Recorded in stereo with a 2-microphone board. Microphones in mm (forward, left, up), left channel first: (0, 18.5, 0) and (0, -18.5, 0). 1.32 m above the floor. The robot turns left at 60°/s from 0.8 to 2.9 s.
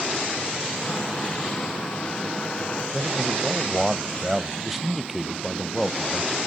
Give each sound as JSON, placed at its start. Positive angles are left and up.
{"t": 2.9, "sound": "a man speaking", "side_deg": -5, "distance_m": 0.8}